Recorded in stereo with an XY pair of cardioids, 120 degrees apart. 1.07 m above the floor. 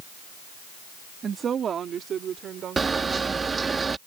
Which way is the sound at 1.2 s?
40° right.